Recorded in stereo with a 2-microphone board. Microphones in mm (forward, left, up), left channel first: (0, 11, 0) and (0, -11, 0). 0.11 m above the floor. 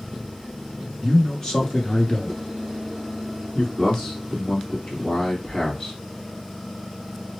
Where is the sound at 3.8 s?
45° left (ahead or behind), 2.5 m.